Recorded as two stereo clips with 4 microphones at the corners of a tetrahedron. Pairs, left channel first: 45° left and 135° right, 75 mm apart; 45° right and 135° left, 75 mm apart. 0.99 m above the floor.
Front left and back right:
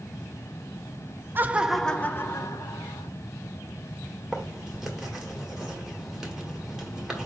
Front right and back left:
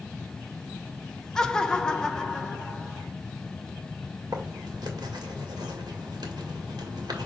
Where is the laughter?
115° right, 0.6 m; by 3.1 s 35° left, 1.0 m.